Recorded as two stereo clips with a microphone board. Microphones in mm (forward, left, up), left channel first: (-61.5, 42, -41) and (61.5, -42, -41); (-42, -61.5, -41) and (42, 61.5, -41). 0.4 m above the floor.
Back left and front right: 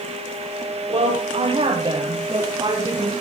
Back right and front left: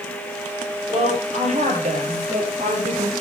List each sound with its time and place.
0.9 s a woman speaking: 15° left, 8.5 m; by 3.1 s 30° left, 8.5 m